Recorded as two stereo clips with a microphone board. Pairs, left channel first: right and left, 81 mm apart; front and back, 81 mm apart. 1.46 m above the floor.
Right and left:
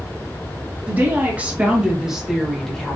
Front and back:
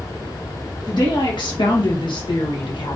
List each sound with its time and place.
0.9 s a woman speaking: 25° left, 2 m; by 3.0 s 10° right, 1.6 m